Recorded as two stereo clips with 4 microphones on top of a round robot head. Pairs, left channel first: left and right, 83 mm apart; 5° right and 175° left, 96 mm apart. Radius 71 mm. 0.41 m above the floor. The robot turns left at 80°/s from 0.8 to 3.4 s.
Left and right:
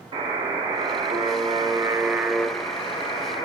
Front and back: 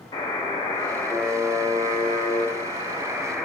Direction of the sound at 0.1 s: 60° right.